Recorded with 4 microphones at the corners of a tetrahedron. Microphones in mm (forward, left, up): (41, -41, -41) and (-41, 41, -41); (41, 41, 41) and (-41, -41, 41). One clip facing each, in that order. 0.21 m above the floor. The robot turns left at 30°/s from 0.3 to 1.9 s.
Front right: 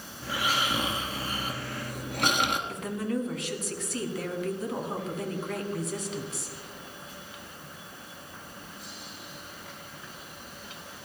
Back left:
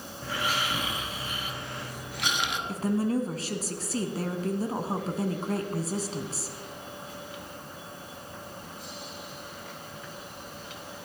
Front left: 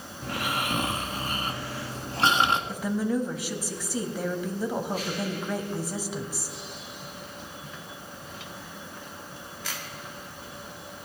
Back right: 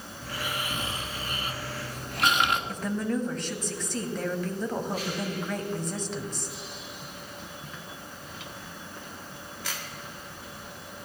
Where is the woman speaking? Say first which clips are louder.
Back left 4 dB, front left 2 dB; 120° left, 1.3 m.